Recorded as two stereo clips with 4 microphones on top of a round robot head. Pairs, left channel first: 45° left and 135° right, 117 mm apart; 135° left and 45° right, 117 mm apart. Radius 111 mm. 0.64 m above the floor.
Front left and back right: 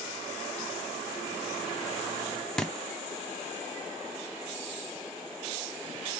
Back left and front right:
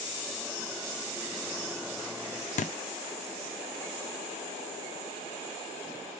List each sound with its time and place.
2.6 s a thud: 125° left, 0.6 m